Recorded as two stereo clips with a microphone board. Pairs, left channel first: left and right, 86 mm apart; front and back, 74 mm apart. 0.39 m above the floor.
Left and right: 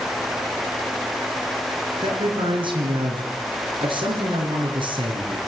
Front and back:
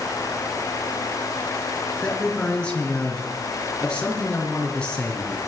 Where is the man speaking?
75° right, 5.5 m.